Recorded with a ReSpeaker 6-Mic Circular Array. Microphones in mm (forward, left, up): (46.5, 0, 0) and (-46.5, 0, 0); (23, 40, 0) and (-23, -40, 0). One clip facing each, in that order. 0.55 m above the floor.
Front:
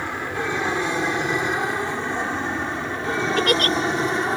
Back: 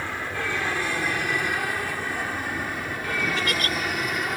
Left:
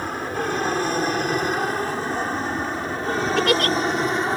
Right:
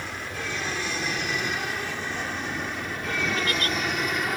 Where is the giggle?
40° left.